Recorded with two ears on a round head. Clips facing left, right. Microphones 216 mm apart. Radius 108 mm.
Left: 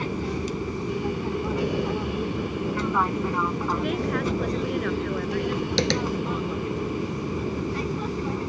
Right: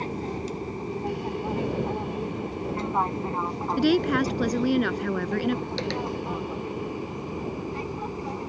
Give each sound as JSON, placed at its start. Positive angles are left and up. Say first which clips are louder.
{"t": 0.0, "sound": "an aircraft", "louder": "left 3 dB", "side_deg": 15}
{"t": 3.8, "sound": "a woman speaking", "louder": "right 8 dB", "side_deg": -65}
{"t": 5.8, "sound": "tapping", "louder": "left 5 dB", "side_deg": 65}